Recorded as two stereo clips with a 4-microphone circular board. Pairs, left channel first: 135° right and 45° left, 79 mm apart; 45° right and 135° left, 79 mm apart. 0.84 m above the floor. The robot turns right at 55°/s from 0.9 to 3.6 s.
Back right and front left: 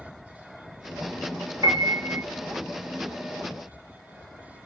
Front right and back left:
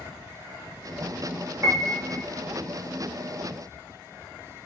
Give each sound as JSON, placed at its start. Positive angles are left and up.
{"t": 1.6, "sound": "a piano", "azimuth_deg": 85, "distance_m": 1.0}